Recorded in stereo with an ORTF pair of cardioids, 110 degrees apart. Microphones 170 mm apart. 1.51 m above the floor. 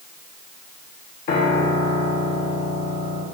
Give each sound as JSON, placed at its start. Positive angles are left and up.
{"t": 1.3, "sound": "a piano", "azimuth_deg": 60, "distance_m": 1.4}